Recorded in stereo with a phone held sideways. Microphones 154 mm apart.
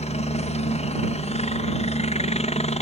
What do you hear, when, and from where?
0.0 s a helicopter: 45° left (ahead or behind)